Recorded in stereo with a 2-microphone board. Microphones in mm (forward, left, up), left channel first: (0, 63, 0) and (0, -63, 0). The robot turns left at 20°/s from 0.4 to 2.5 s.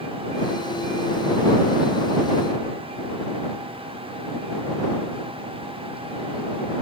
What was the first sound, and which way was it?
Only background noise.